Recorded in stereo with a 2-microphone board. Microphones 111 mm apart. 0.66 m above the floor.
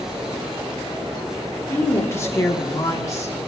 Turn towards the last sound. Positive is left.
turn(degrees=30)  # may be behind; listen again after turning